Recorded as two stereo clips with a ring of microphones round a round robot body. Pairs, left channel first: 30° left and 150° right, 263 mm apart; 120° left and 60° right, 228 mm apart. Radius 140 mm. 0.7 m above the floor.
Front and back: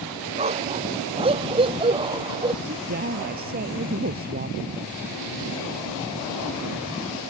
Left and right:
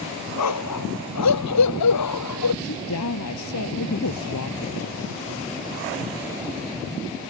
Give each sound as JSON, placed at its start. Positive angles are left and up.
{"t": 0.4, "sound": "a dog barking", "azimuth_deg": 140}
{"t": 2.6, "sound": "a woman speaking", "azimuth_deg": 155}